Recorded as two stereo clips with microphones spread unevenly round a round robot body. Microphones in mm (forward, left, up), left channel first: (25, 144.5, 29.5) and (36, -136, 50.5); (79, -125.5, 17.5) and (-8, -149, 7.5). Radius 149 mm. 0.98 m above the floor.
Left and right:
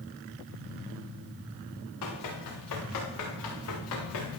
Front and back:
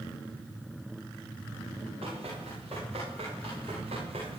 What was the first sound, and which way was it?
Running footsteps, 130° left.